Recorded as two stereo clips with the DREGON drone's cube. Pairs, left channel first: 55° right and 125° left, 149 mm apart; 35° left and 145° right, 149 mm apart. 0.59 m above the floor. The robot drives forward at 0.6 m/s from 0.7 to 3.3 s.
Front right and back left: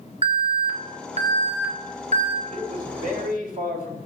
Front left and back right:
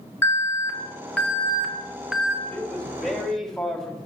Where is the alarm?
100° left, 1.9 m; by 2.4 s 135° left, 2.5 m.